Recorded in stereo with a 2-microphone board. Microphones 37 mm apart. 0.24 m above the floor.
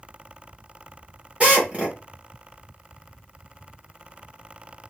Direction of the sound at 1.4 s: 35° right (ahead or behind).